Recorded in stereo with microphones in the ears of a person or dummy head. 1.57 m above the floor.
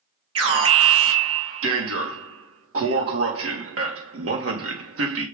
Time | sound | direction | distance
0.3 | an alarm | 70° right (ahead or behind) | 2.5 m